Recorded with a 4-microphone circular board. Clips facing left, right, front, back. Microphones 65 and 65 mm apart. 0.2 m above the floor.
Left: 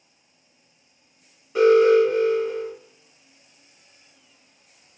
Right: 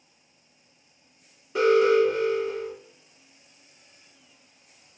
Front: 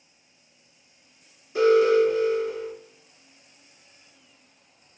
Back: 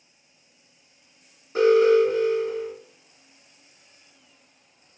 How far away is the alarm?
About 1.3 m.